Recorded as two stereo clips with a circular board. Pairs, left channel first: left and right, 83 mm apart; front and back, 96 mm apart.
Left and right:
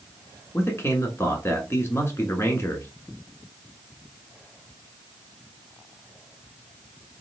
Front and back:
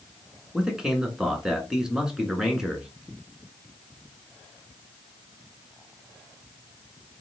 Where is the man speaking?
100° left, 1.2 m.